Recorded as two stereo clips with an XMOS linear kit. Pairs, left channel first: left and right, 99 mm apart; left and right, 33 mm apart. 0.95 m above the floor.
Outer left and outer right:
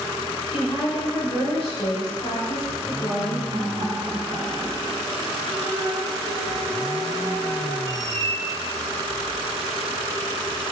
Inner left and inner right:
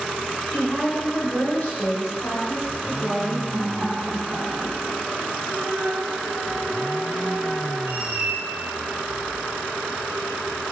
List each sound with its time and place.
0.5 s a woman speaking: 70° left (ahead or behind), 4 m; by 3.4 s 50° left (ahead or behind), 6 m
3.5 s laughter: 65° right (ahead or behind), 3 m
5.5 s a flute: 50° left (ahead or behind), 4 m
7.8 s a squeak: 35° right (ahead or behind), 2 m